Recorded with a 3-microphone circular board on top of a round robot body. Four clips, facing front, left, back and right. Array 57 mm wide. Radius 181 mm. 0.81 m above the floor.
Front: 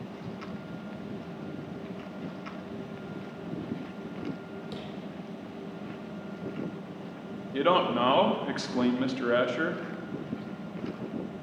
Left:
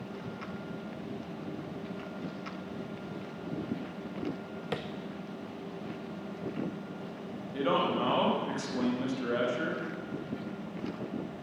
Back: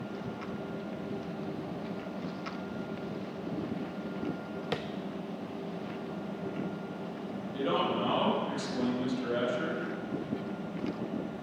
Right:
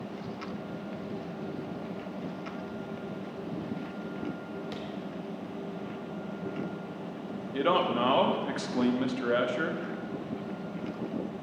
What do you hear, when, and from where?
4.7 s tapping: 140° left, 0.5 m
7.5 s a man speaking: 25° right, 2.0 m